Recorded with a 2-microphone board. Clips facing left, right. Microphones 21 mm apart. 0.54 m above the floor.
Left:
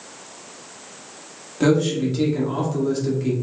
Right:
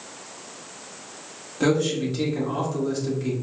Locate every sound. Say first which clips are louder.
1.6 s a man speaking: left 3 dB; 10° left (ahead or behind), 1.1 m